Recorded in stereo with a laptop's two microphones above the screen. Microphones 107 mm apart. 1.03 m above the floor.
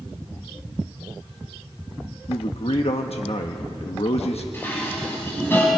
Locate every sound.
2.3 s a man speaking: 70° left (ahead or behind), 1.2 m
4.5 s dishes clattering: 20° left (ahead or behind), 5 m